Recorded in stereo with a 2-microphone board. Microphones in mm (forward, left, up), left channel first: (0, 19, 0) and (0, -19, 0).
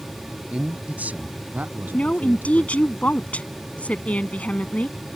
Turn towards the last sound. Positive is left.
turn(degrees=40)  # may be behind; listen again after turning